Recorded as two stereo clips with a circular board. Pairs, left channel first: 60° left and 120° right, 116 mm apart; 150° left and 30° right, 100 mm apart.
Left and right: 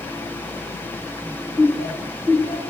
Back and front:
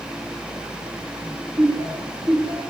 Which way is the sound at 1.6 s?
45° right.